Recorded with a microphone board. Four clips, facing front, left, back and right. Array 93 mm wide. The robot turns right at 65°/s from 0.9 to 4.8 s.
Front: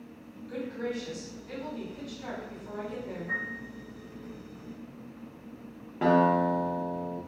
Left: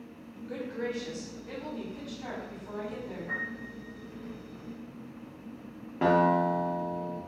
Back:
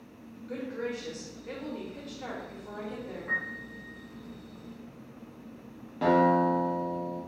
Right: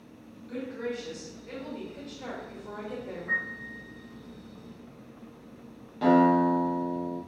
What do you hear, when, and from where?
0.5 s a woman speaking: 130° left, 1.0 m; by 3.4 s 70° right, 1.0 m
3.3 s a piano: 155° right, 1.1 m; by 3.8 s 120° right, 1.1 m
6.0 s a guitar: 65° left, 0.8 m